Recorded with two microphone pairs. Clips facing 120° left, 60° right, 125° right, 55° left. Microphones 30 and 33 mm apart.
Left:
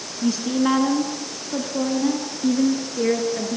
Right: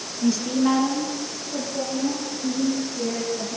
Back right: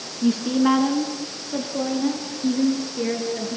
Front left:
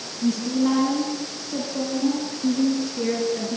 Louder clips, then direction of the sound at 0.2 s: Even, back right 2 dB; 160° right.